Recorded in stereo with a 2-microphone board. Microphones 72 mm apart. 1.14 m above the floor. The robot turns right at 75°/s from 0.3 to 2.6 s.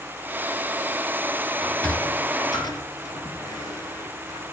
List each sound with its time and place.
1.6 s a sliding door: centre (ahead or behind), 2.5 m; by 4.4 s 65° left (ahead or behind), 2.5 m